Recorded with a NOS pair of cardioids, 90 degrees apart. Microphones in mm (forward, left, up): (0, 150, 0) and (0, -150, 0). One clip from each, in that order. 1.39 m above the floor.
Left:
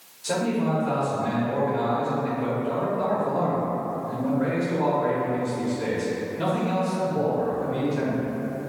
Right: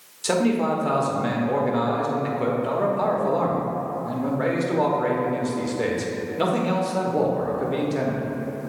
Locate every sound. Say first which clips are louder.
0.2 s a man speaking: right 4 dB; 65° right, 1.2 m